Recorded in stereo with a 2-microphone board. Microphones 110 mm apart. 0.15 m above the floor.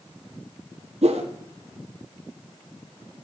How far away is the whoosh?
About 1.4 m.